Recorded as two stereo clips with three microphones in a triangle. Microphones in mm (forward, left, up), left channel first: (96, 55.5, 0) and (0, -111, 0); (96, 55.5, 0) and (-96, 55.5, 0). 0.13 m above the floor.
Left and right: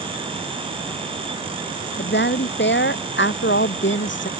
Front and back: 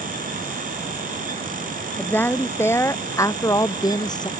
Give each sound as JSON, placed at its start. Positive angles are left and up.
{"t": 2.0, "sound": "a woman speaking", "azimuth_deg": 80}